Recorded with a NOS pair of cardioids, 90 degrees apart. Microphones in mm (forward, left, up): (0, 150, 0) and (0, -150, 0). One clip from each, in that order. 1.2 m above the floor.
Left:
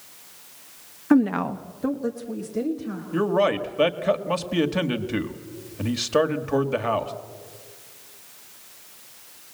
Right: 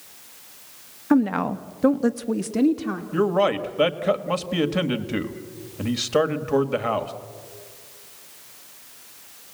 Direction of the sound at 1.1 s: 10° left.